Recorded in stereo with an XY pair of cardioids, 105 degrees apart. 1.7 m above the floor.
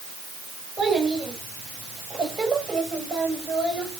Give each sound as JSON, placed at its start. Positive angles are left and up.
{"t": 0.8, "sound": "a child speaking", "azimuth_deg": -45, "distance_m": 8.0}